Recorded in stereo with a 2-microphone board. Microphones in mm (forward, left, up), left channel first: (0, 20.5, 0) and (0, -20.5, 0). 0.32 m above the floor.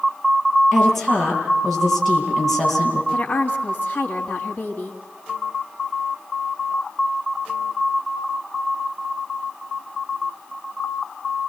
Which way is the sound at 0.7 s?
Centre (ahead or behind).